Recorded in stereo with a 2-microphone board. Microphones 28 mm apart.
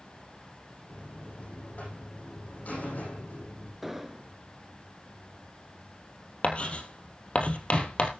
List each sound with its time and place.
0.9 s a buzzer: 70° left (ahead or behind), 8.5 m
3.8 s an explosion: 10° right (ahead or behind), 1.0 m
6.4 s writing: 50° left (ahead or behind), 2.5 m